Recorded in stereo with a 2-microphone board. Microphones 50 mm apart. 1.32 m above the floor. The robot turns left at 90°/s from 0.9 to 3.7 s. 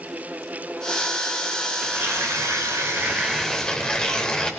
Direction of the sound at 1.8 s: 30° right.